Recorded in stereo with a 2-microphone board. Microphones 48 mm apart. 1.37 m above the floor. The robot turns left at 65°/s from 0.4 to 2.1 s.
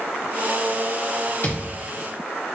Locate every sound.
1.4 s a thud: 45° left (ahead or behind), 1.5 m; by 1.8 s 30° left (ahead or behind), 1.5 m